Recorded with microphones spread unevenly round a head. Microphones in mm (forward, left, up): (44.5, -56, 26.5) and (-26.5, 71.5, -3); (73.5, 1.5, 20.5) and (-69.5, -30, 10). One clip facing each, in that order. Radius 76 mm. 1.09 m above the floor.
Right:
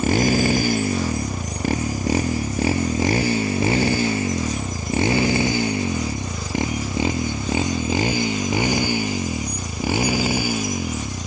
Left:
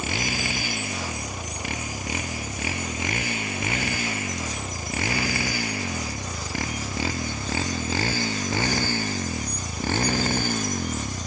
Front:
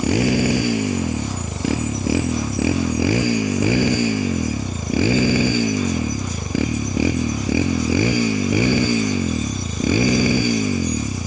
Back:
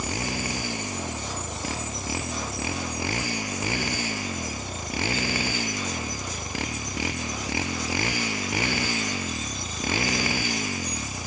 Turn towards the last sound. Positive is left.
turn(degrees=20)